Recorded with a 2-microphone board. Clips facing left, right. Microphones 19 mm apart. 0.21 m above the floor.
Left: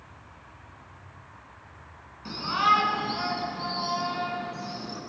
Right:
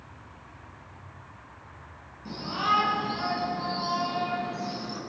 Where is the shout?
55° left (ahead or behind), 2.5 m; by 5.0 s 10° right (ahead or behind), 2.5 m.